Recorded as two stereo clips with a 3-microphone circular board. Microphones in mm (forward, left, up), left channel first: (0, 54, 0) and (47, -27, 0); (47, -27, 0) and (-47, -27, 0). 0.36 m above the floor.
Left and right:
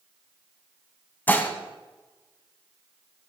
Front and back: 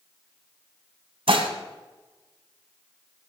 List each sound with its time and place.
1.3 s dishes clattering: 170° right, 1.7 m